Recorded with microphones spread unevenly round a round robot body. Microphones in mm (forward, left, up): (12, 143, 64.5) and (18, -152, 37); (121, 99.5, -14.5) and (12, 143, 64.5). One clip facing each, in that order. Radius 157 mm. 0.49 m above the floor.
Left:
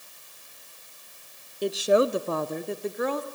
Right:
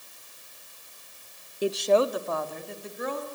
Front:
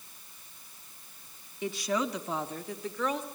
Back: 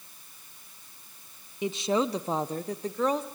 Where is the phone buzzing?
I don't hear a phone buzzing.